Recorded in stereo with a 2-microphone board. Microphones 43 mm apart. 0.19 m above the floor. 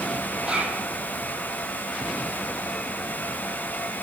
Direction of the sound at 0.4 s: 20° right (ahead or behind).